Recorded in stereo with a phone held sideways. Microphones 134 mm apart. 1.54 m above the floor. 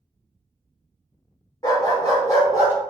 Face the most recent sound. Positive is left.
turn(degrees=25)  # may be behind; listen again after turning